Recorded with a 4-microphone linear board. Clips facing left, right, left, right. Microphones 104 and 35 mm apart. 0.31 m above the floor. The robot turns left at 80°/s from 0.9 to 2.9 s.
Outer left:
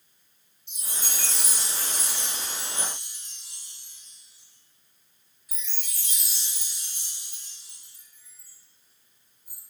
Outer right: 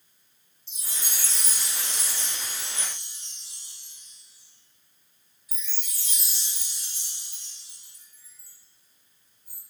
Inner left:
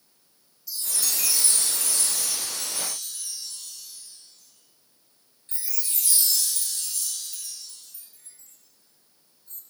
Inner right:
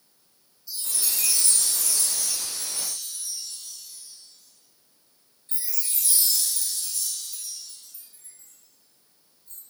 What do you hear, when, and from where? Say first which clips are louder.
0.7 s a chime: outer left 2 dB, inner left 1 dB; 30° right (ahead or behind), 2.5 m; by 9.6 s 50° left (ahead or behind), 2.5 m